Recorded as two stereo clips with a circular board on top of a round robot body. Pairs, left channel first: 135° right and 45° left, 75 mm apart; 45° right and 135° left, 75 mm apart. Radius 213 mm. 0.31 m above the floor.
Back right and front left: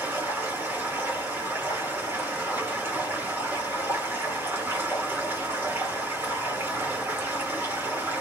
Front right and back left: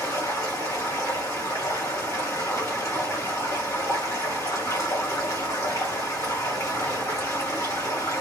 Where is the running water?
10° right, 2 m.